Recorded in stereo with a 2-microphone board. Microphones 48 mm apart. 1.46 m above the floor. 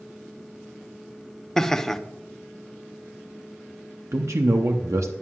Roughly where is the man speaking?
Right.